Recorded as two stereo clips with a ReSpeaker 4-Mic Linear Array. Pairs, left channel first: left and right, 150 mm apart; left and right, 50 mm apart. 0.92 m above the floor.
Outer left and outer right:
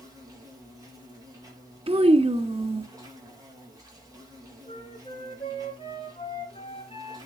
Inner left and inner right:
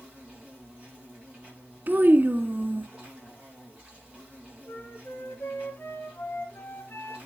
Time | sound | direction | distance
0.0 | an insect | 20° right (ahead or behind) | 6.5 m
1.9 | a child speaking | 40° right (ahead or behind) | 1.3 m
4.7 | a flute | 35° left (ahead or behind) | 3 m